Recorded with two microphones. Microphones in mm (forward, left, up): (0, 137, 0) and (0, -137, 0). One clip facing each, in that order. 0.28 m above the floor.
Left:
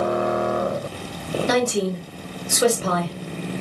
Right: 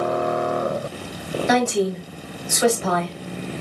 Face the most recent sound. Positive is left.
turn(degrees=40)  # may be behind; listen again after turning